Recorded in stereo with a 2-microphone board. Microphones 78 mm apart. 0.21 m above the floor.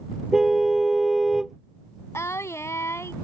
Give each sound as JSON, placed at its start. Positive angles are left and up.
{"t": 0.3, "sound": "a car horn", "side_deg": -5}
{"t": 2.1, "sound": "singing", "side_deg": 35}